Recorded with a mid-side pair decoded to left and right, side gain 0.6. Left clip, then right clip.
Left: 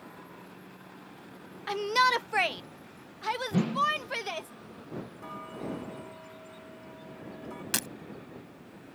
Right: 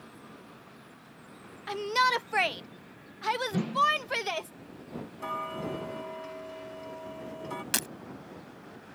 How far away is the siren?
I don't hear a siren.